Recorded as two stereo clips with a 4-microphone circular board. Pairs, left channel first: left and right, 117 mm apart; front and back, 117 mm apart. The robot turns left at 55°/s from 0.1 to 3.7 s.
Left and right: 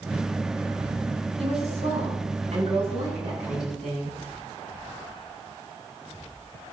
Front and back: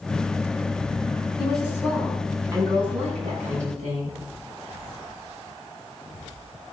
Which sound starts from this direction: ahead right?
A woman speaking, at 1.4 s.